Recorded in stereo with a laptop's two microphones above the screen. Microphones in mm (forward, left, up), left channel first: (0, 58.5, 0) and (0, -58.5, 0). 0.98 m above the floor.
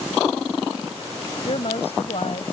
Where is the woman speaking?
60° left (ahead or behind).